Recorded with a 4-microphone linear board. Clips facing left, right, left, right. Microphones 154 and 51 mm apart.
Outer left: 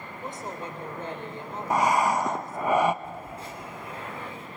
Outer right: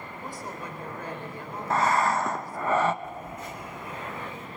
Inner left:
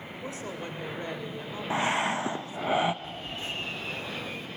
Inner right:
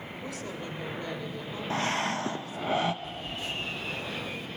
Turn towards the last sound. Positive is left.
turn(degrees=30)  # may be behind; listen again after turning